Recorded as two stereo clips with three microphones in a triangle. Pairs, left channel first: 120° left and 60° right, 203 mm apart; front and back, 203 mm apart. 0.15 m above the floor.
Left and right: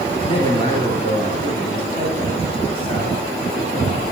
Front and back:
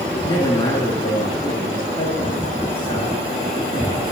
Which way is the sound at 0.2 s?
65° left.